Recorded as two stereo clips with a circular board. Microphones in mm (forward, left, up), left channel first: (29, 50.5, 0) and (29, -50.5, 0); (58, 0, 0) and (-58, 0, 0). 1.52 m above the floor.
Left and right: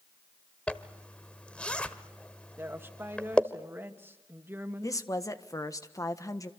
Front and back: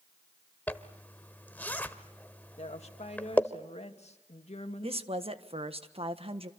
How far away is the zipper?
About 1.3 m.